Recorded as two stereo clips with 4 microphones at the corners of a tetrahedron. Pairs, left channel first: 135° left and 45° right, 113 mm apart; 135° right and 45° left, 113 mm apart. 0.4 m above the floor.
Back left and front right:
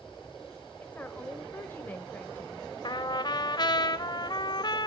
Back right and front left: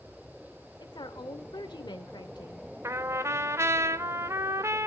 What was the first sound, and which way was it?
A woman speaking, 160° right.